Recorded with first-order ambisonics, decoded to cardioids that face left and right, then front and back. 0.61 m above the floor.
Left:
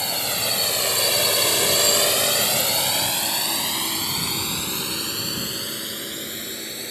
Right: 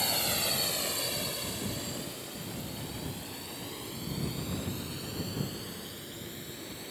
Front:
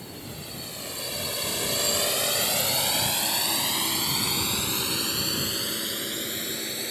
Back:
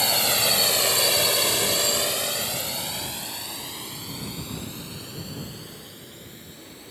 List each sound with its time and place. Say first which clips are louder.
0.0 s a drone: left 6 dB, back 19 dB; 165° left; by 6.9 s 40° left